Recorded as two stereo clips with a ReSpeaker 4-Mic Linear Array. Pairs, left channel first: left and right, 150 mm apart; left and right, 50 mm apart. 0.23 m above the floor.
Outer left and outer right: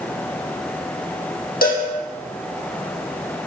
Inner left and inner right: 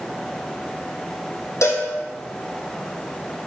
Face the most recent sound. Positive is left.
turn(degrees=85)